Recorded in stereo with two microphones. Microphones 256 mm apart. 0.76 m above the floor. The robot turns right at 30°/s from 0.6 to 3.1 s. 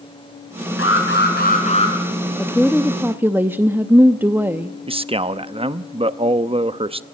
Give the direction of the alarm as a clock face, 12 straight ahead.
8 o'clock.